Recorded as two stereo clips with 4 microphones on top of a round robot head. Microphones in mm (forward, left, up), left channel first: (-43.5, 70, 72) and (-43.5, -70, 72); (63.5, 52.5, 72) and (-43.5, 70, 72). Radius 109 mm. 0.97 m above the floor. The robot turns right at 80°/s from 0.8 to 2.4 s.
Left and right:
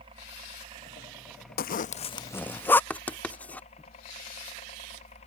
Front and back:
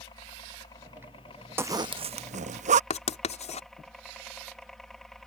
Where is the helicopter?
50° right; by 5.3 s 75° left.